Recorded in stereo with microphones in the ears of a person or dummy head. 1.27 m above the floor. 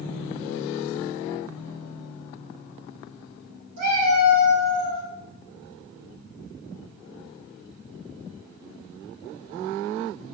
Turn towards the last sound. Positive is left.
turn(degrees=-50)  # may be behind; listen again after turning